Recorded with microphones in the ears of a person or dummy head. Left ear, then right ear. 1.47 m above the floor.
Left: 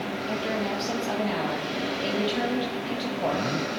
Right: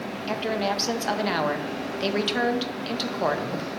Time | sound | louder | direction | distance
0.3 | a woman speaking | right 4 dB | 65° right (ahead or behind) | 1.1 m